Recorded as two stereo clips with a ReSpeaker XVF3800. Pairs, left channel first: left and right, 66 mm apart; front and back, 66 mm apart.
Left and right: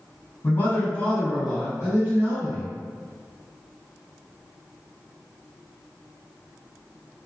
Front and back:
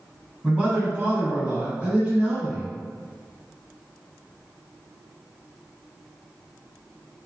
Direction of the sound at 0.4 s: 115° left.